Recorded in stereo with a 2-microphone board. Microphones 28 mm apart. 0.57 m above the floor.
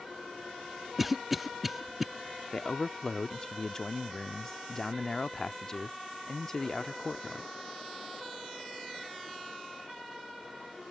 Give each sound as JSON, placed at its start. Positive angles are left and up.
{"t": 1.0, "sound": "a cough", "side_deg": -5}
{"t": 2.5, "sound": "a man speaking", "side_deg": 20}